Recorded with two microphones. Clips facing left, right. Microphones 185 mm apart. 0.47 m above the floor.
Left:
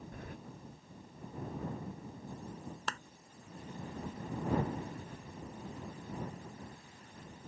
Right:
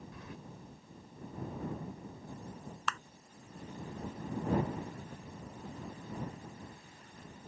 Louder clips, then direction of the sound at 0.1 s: Left 3 dB; 55° left (ahead or behind).